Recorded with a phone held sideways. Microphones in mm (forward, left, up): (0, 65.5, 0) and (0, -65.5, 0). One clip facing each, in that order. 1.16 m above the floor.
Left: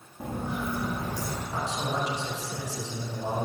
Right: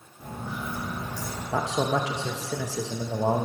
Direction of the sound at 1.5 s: 85° right.